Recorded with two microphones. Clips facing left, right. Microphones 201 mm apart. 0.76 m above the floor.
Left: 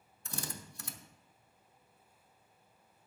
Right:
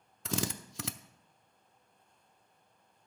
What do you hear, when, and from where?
0.2 s a drill: 80° right, 0.6 m